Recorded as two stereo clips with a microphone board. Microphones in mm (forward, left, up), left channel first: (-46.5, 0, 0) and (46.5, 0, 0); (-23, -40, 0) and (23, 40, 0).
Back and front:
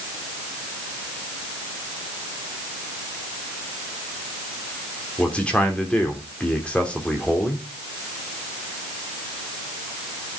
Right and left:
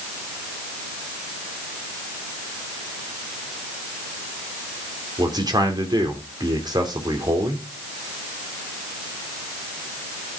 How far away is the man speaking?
About 3 m.